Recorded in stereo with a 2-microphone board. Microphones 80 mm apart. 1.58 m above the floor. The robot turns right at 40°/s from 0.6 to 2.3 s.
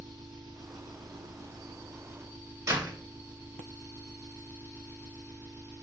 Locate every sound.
0.0 s an engine running: 105° right, 2.5 m; by 5.8 s 35° right, 2.5 m
2.7 s a door slam: 45° right (ahead or behind), 2.0 m